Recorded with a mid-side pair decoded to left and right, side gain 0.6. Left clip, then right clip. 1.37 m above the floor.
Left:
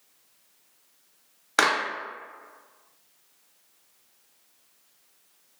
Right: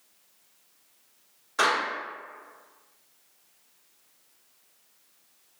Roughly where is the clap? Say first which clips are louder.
Left 2 dB; ahead left.